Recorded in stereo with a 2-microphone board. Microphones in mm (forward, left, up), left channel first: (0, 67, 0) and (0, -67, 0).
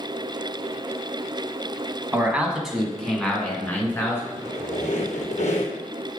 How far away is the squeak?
About 2 m.